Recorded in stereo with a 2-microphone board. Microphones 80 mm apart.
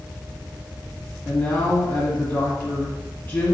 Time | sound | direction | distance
1.2 | a man speaking | 20° left (ahead or behind) | 1.3 m